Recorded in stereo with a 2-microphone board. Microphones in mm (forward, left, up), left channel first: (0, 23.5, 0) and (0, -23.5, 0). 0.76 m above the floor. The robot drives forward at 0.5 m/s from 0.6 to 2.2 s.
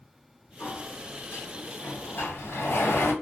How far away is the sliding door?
About 2.5 m.